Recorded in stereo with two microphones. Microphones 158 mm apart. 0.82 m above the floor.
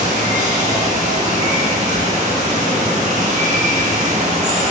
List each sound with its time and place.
0.0 s running water: 50° right (ahead or behind), 0.8 m